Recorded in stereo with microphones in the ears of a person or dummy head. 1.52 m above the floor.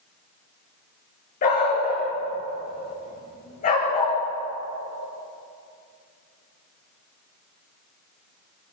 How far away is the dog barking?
About 6.5 m.